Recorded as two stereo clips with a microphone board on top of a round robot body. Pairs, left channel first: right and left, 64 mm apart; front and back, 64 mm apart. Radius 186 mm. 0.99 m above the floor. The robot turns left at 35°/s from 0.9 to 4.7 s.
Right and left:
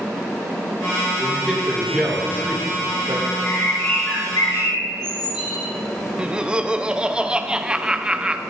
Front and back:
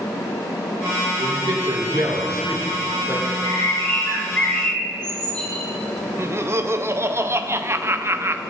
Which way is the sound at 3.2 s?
25° right.